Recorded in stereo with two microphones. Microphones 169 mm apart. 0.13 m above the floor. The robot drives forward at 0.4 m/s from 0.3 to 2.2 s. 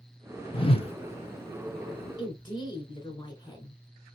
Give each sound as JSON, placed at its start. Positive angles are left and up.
{"t": 0.5, "sound": "a whoosh", "side_deg": 35, "distance_m": 0.5}
{"t": 2.2, "sound": "a woman speaking", "side_deg": 25, "distance_m": 1.5}